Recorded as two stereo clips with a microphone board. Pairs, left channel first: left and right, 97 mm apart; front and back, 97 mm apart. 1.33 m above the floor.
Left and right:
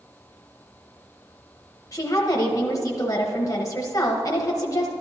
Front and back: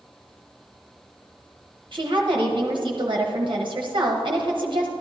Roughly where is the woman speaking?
Behind left.